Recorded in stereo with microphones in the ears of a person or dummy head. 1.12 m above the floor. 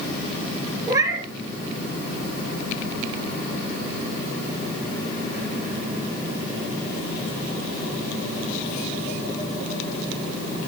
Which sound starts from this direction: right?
A cat meowing, at 0.9 s.